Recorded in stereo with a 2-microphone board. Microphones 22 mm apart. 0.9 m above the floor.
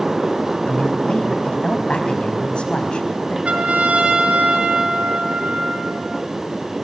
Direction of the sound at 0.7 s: 55° left (ahead or behind).